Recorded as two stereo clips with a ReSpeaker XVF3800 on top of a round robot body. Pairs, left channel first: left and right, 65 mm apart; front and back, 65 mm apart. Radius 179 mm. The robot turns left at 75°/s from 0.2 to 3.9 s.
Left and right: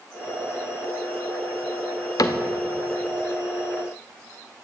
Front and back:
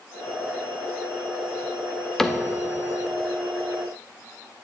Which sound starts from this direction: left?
A cupboard door, at 2.2 s.